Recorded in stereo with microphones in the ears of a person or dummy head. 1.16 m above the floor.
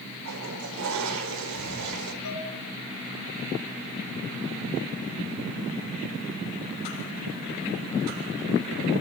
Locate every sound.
0.2 s a toilet flushing: 75° right (ahead or behind), 4.5 m
2.2 s dishes clattering: 80° left, 9 m